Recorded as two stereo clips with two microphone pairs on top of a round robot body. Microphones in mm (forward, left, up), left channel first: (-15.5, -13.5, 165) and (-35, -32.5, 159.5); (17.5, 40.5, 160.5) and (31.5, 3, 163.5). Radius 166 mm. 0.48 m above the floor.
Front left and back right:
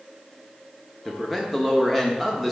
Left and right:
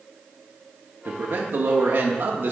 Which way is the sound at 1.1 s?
60° right.